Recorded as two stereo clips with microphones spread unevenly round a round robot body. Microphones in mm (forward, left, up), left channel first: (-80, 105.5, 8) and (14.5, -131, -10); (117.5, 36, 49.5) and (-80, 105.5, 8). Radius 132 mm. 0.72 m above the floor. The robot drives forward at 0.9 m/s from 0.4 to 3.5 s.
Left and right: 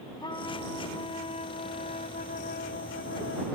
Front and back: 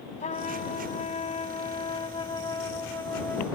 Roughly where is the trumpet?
Ahead left.